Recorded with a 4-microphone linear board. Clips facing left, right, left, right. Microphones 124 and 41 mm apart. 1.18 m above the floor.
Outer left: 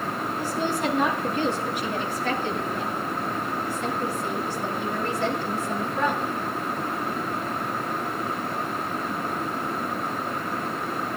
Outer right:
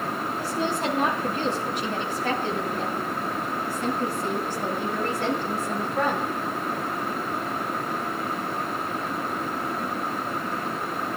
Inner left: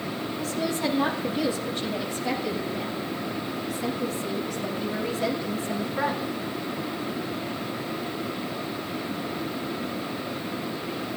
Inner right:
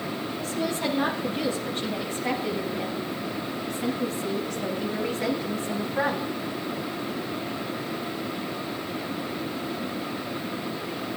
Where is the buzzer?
No buzzer in this recording.